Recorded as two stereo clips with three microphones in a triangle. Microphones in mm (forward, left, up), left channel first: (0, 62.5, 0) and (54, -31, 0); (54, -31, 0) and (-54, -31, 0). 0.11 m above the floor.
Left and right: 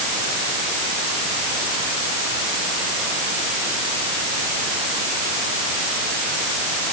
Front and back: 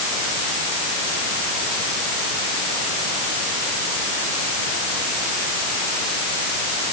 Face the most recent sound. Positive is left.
No sound to turn to.